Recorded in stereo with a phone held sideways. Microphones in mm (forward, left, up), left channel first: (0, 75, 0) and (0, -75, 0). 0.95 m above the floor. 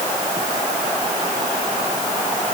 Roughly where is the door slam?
I don't hear a door slam.